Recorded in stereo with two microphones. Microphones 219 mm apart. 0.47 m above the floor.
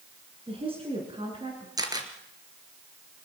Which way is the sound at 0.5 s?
25° right (ahead or behind).